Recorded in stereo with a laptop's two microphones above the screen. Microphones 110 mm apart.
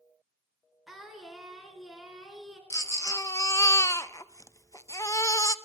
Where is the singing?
Centre (ahead or behind), 3 m.